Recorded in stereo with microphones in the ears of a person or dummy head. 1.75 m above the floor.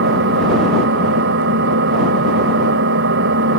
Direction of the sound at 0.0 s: 70° right (ahead or behind).